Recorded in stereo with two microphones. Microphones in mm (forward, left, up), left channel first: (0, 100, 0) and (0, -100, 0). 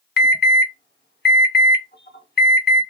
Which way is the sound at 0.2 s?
55° left (ahead or behind).